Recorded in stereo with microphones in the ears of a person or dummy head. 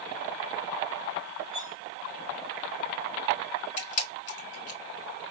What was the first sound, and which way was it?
Cutlery clinking, 55° left (ahead or behind).